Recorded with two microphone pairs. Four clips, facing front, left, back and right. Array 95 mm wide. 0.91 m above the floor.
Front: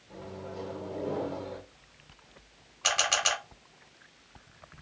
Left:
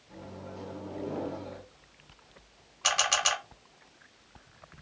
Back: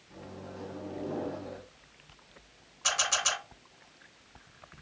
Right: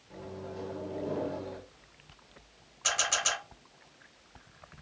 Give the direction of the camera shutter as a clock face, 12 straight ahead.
11 o'clock.